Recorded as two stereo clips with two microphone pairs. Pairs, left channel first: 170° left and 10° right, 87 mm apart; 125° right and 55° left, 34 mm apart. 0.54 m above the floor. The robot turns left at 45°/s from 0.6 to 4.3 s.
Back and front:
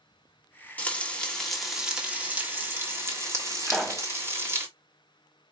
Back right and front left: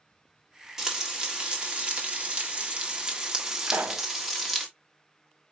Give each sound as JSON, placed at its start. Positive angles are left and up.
{"t": 0.8, "sound": "frying", "azimuth_deg": 120, "distance_m": 1.5}
{"t": 3.7, "sound": "a pop", "azimuth_deg": 80, "distance_m": 0.7}